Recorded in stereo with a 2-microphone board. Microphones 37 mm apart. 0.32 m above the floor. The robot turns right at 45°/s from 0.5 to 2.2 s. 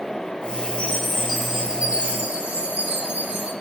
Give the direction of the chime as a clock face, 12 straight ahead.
7 o'clock.